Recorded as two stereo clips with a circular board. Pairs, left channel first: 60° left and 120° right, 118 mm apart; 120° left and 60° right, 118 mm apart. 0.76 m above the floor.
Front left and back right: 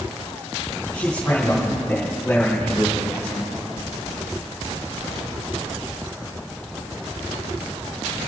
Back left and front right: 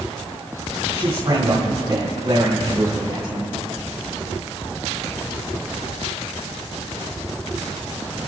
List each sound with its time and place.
0.9 s a man speaking: 20° right, 3 m